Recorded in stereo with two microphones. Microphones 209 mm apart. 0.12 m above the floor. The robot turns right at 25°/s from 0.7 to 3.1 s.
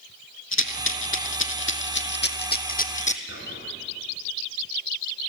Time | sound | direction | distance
0.5 | a rattle | 80° left | 0.8 m
3.3 | whispering | 75° left (ahead or behind) | 5 m